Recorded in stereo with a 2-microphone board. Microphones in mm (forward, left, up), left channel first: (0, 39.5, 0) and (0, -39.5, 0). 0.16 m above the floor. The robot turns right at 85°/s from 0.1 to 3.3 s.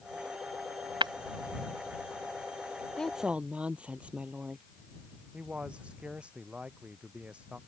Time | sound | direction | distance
1.0 | breaking glass | 80° right | ?
3.0 | a woman speaking | 15° left (ahead or behind) | ?
5.3 | a man speaking | 15° right (ahead or behind) | ?